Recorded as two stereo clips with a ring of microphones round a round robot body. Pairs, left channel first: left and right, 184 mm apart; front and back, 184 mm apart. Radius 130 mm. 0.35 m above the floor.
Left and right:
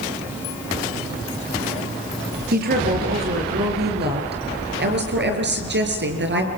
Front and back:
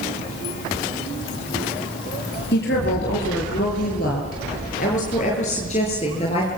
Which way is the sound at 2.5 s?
55° right.